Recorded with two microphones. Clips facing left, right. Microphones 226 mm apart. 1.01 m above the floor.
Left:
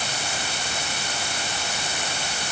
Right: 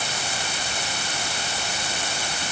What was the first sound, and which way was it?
Only background noise.